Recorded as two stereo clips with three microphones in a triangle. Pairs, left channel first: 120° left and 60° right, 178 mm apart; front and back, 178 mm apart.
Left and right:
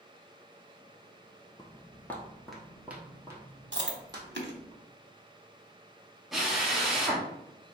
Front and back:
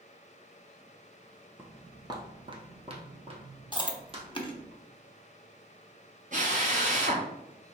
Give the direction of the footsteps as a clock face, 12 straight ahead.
8 o'clock.